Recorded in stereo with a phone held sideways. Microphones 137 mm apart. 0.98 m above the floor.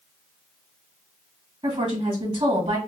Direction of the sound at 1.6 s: 35° right (ahead or behind).